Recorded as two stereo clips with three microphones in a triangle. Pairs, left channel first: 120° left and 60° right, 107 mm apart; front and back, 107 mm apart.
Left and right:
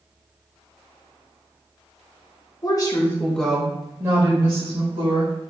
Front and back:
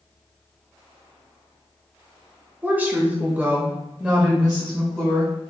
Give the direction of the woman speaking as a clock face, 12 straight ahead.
8 o'clock.